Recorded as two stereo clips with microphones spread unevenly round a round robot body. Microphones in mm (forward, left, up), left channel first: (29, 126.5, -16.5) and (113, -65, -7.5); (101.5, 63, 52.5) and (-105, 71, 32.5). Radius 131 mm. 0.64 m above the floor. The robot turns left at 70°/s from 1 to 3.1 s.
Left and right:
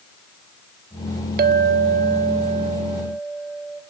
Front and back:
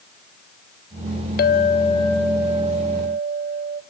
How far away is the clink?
About 0.6 m.